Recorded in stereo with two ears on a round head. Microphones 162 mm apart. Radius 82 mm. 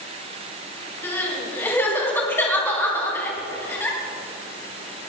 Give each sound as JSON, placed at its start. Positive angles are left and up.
{"t": 1.0, "sound": "crying", "side_deg": 10, "distance_m": 3.5}